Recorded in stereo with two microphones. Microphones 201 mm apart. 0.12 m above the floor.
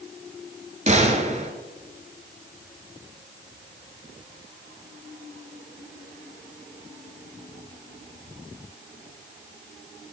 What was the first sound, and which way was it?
A gunshot, 35° right (ahead or behind).